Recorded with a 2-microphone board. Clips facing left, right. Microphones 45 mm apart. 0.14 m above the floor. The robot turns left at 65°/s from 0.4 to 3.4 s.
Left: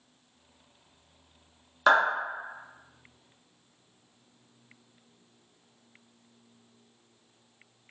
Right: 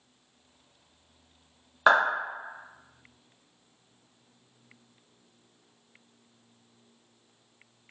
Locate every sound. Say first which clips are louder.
1.9 s a clap: right 1 dB; 15° right (ahead or behind), 1.2 m; by 2.0 s 20° right (ahead or behind), 1.2 m